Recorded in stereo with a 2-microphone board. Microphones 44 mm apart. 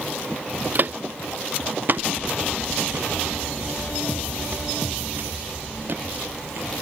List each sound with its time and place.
0.8 s footsteps: 45° right (ahead or behind); by 6.7 s 50° right (ahead or behind)